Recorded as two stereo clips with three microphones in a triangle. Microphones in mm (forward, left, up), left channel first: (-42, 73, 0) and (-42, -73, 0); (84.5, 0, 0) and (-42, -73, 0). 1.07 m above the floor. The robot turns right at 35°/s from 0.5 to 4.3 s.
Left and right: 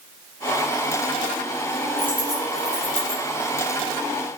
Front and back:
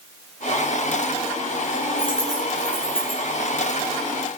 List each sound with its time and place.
2.0 s a dropped coin: 95° right, 4.5 m; by 3.2 s 55° right, 4.5 m